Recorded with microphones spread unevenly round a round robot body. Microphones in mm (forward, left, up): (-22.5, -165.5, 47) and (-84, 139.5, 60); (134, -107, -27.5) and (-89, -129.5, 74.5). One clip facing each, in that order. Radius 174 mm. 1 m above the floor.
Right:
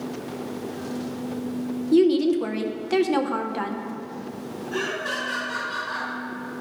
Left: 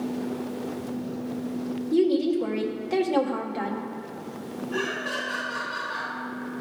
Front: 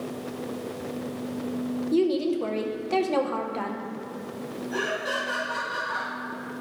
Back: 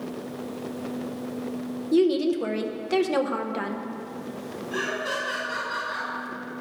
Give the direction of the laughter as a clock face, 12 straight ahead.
3 o'clock.